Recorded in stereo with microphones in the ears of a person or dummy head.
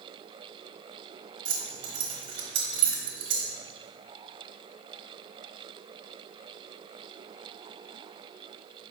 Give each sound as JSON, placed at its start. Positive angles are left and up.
{"t": 1.4, "sound": "keys jangling", "side_deg": -35, "distance_m": 1.0}